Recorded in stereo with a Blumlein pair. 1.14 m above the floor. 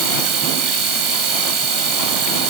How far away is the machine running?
About 1.1 m.